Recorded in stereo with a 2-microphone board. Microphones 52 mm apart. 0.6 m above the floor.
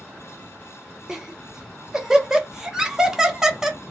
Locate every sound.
1.1 s laughter: 10° right (ahead or behind), 1.2 m